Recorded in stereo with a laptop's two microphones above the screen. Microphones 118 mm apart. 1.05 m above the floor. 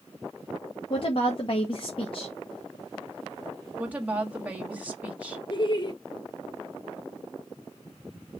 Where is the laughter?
40° left (ahead or behind), 1.1 m.